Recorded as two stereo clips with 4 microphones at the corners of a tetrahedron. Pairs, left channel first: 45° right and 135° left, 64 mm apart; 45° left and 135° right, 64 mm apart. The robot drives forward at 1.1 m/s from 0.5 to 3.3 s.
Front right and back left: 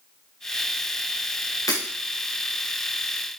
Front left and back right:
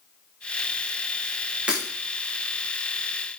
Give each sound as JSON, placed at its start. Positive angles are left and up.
{"t": 1.7, "sound": "breaking glass", "azimuth_deg": -65, "distance_m": 4.5}